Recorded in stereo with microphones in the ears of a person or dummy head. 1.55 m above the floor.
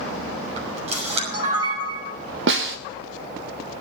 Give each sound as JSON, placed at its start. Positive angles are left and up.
{"t": 0.6, "sound": "a camera shutter", "side_deg": -35, "distance_m": 6.5}
{"t": 2.5, "sound": "a snare drum", "side_deg": -60, "distance_m": 0.8}